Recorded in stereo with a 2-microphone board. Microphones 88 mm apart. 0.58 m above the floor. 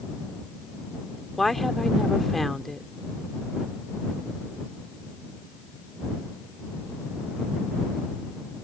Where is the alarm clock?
No alarm clock in this recording.